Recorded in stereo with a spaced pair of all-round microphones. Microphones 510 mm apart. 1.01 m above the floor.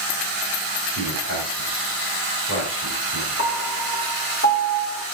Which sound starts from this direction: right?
A man speaking, at 0.9 s.